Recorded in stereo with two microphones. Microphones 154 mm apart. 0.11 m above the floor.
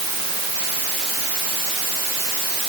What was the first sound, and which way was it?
Only background noise.